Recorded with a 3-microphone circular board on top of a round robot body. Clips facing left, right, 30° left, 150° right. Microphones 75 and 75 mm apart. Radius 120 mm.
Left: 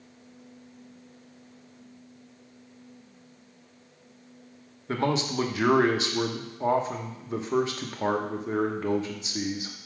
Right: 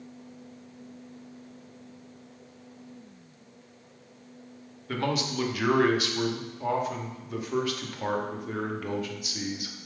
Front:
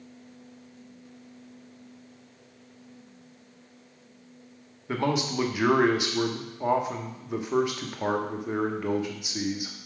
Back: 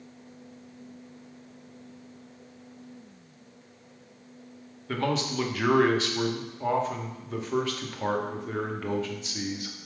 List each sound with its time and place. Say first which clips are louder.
4.9 s a man speaking: left 3 dB, front 1 dB; 85° left, 1.1 m